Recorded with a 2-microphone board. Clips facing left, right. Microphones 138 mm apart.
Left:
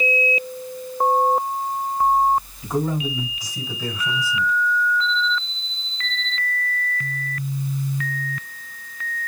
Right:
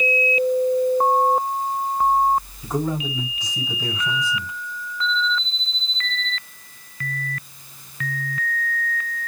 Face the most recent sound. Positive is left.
turn(degrees=0)  # may be behind; listen again after turning